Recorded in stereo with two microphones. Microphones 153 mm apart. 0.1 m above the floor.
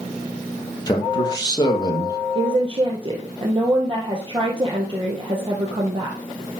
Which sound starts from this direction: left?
A man speaking, at 0.9 s.